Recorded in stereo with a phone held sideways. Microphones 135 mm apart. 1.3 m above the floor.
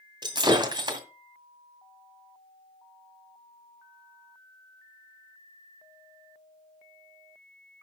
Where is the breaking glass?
35° right (ahead or behind), 2 m.